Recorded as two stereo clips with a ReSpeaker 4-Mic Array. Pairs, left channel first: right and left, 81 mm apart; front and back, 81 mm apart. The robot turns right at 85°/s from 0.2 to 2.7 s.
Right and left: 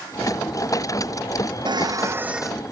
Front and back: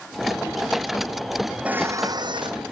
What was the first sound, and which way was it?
Dishes clattering, 105° left.